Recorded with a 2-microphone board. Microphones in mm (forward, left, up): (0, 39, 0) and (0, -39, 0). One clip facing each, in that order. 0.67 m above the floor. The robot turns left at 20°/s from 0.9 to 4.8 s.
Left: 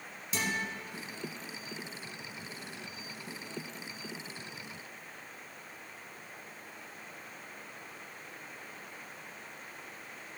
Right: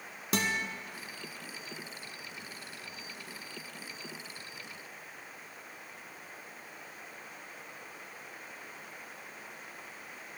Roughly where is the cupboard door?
No cupboard door in this recording.